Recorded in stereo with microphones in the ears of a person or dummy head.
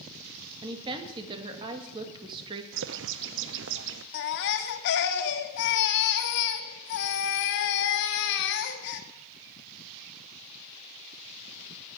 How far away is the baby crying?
About 1.8 m.